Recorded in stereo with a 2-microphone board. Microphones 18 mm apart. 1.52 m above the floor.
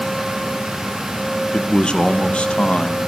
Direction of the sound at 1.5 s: 45° left (ahead or behind).